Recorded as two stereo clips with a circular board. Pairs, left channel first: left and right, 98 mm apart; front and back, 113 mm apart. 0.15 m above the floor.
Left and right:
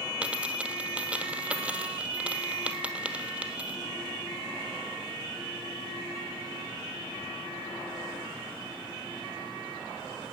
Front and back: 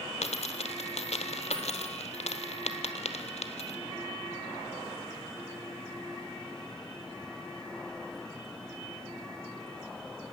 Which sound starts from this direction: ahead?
A dropped coin, at 0.2 s.